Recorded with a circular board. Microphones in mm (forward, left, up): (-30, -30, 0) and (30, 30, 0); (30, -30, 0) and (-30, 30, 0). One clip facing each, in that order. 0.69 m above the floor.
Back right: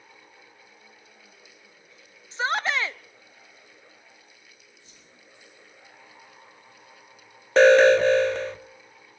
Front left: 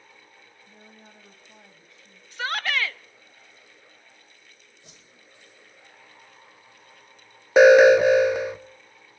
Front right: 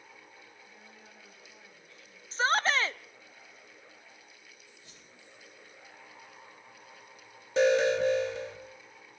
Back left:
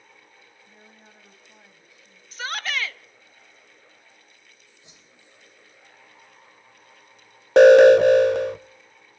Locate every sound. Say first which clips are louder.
0.7 s a woman speaking: front left 3 dB, back left 2 dB; 70° left, 5 m; by 2.2 s 60° left, 5 m
2.3 s a shout: back right 2 dB, front right 4 dB; 80° right, 0.5 m
4.8 s a whoosh: front left 2 dB, back left 1 dB; 65° left, 3.5 m
7.6 s an alarm: front left 3 dB, back left 15 dB; 125° left, 0.6 m